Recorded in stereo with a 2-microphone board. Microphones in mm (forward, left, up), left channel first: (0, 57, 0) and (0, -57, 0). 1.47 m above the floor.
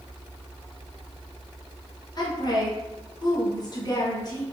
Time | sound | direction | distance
2.2 | a woman speaking | 35° left (ahead or behind) | 0.9 m